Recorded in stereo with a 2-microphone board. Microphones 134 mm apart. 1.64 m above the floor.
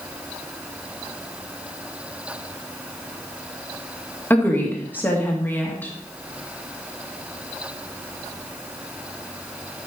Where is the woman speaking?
15° left (ahead or behind), 2 m.